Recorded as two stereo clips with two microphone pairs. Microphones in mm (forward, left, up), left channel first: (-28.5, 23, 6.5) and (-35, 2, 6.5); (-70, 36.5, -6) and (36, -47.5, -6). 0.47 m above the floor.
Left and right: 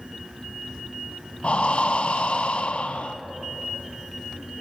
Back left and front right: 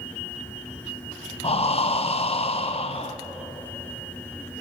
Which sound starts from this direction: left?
Breathing, at 1.4 s.